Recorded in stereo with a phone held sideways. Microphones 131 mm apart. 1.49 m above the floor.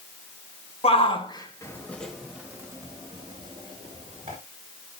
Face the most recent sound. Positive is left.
turn(degrees=-50)  # may be behind; listen again after turning